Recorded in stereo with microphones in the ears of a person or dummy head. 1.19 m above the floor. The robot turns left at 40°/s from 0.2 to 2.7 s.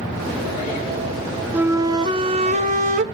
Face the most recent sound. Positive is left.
turn(degrees=-65)